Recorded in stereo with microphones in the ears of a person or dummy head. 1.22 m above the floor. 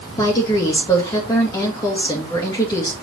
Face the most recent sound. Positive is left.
turn(degrees=30)  # may be behind; listen again after turning